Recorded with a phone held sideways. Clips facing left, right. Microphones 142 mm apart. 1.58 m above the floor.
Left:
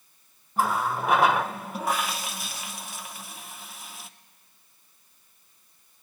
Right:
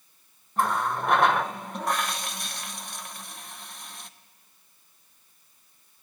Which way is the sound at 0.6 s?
5° left (ahead or behind).